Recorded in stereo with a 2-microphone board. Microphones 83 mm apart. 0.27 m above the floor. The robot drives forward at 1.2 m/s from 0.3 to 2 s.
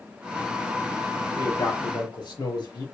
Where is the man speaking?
65° left (ahead or behind), 5 m; by 2.9 s 60° left (ahead or behind), 5.5 m.